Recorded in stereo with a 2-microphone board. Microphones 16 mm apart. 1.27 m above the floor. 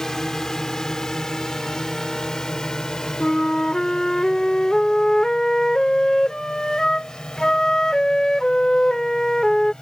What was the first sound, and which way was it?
A drone, 30° left (ahead or behind).